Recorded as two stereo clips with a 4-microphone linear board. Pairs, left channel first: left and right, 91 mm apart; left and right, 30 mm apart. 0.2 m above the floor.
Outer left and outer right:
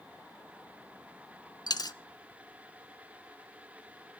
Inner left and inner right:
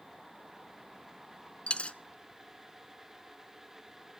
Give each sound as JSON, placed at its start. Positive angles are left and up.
{"t": 1.7, "sound": "a dropped coin", "side_deg": 45, "distance_m": 0.5}